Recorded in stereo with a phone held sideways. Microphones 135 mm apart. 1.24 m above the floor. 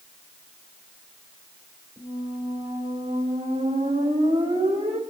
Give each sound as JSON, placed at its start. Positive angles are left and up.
{"t": 2.0, "sound": "a squeak", "side_deg": -60, "distance_m": 3.0}